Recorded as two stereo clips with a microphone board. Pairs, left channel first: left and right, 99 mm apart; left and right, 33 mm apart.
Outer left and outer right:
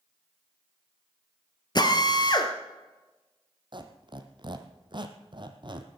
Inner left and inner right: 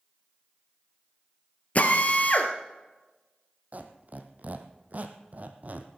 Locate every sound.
1.8 s a drill: 45° left (ahead or behind), 1.8 m
3.7 s a squeak: 50° right (ahead or behind), 1.4 m